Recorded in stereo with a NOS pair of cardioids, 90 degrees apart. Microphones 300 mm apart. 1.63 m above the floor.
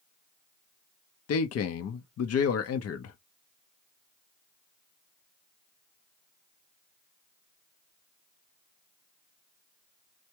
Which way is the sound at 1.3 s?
55° left.